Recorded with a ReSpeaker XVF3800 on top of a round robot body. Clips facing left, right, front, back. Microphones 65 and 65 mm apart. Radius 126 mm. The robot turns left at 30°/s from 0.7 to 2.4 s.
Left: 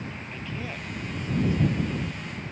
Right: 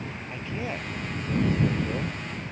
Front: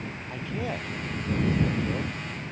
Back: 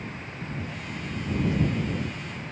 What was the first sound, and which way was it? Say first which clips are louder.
A man speaking: right 5 dB, front 7 dB; 20° right.